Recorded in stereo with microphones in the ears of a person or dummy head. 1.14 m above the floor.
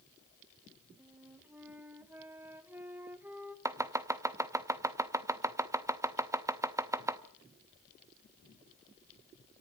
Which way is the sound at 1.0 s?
10° right (ahead or behind).